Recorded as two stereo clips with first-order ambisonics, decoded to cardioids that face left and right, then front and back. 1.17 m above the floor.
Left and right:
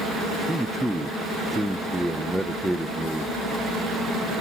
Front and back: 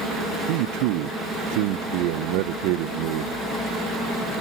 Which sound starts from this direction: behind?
A man speaking, at 0.5 s.